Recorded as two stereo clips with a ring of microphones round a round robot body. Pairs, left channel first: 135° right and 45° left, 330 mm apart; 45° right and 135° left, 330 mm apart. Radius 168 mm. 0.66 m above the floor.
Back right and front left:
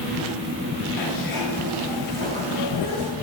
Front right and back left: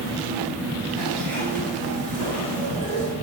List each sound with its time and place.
1.0 s a zipper: 115° right, 5 m